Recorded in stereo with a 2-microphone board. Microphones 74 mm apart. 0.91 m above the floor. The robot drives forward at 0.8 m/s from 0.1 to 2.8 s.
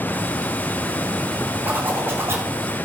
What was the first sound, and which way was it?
A zipper, 25° right (ahead or behind).